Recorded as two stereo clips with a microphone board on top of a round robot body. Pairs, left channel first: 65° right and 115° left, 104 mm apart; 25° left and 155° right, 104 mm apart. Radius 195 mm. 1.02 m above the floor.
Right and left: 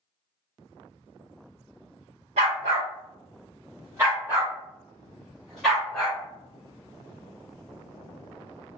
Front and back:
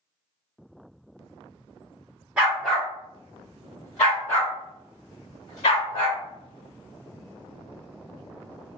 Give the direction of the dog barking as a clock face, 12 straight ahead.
8 o'clock.